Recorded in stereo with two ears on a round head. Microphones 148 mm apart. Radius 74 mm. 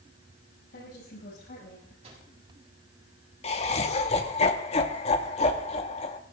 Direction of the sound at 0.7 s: 65° left (ahead or behind).